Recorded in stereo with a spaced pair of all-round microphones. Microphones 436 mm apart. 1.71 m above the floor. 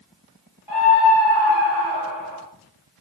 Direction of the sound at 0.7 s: 60° left (ahead or behind).